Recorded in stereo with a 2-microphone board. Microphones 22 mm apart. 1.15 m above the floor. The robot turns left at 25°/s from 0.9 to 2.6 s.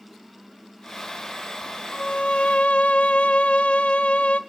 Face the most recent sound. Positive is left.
turn(degrees=75)  # may be behind; listen again after turning